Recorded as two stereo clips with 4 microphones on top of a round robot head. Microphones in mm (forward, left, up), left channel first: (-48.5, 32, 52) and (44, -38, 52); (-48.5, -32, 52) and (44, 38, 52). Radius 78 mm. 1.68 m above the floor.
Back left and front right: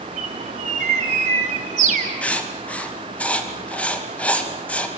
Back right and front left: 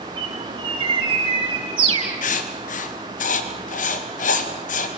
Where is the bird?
15° right, 6 m.